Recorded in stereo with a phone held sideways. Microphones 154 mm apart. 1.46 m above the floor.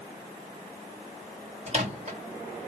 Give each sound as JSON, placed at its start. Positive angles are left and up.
{"t": 1.7, "sound": "a microwave", "side_deg": -45, "distance_m": 1.0}